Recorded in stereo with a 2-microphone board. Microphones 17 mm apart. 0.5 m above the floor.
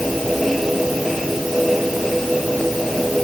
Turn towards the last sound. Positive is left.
No sound to turn to.